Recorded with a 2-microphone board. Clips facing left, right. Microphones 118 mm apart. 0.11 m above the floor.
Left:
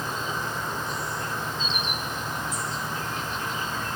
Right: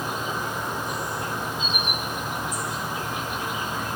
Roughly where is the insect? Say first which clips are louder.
Right 2 dB; centre.